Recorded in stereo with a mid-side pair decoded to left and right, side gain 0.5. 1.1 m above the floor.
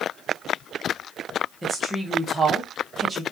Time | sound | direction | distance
1.6 | a woman speaking | 25° right | 1.1 m